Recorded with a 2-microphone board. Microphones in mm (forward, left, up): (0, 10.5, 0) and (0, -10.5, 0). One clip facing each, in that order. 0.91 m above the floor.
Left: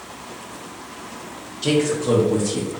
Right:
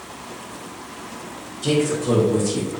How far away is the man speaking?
About 0.8 m.